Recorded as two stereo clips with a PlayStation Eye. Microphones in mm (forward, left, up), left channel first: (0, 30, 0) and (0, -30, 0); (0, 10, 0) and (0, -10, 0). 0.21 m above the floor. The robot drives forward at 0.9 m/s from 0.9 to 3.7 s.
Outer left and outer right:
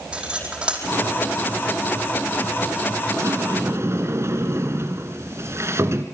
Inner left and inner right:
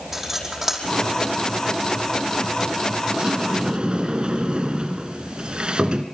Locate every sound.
0.1 s cutlery clinking: 15° right (ahead or behind), 4.5 m
3.1 s a sliding door: 55° right (ahead or behind), 2 m; by 6.0 s 50° right (ahead or behind), 2.5 m